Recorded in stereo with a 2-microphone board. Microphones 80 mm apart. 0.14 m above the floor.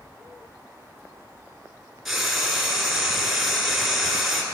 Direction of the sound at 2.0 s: 5° right (ahead or behind).